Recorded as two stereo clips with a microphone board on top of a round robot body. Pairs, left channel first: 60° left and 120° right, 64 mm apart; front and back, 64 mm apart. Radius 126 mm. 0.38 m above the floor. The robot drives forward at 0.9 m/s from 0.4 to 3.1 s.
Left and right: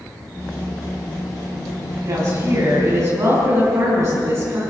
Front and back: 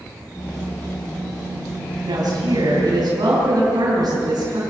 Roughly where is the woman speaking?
Behind.